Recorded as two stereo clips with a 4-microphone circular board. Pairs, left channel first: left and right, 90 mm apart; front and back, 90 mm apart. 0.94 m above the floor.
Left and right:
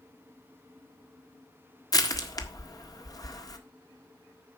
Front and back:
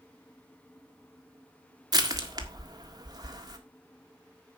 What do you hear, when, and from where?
1.9 s crushing: 135° left, 1.5 m